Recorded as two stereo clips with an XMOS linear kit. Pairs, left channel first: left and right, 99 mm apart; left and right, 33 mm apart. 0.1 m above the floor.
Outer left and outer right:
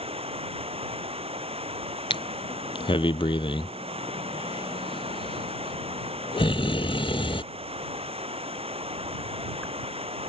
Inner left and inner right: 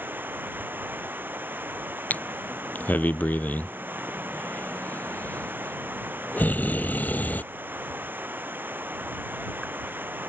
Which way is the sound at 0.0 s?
80° right.